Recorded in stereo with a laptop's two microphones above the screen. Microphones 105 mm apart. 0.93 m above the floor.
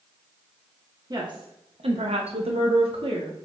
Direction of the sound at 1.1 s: 35° right (ahead or behind).